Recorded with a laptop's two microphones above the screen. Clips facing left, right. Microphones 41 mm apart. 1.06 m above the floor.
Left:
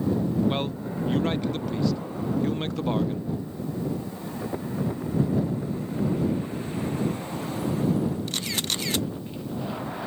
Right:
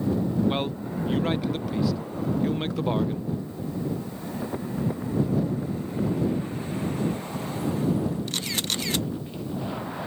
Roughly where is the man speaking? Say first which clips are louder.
Right 1 dB; centre.